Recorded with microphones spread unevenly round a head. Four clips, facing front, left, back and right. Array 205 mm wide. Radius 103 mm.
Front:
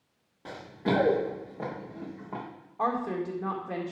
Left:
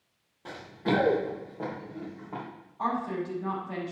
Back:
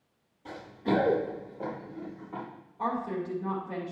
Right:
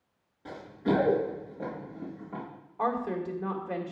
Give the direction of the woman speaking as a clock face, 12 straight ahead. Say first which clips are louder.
Right 1 dB, front 2 dB; 2 o'clock.